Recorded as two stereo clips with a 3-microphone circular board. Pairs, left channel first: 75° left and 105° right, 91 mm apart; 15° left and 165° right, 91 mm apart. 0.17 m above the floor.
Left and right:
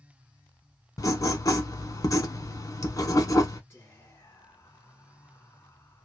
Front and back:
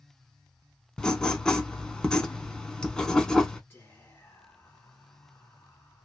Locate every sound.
1.0 s writing: 95° left, 0.6 m
3.7 s whispering: 75° left, 1.8 m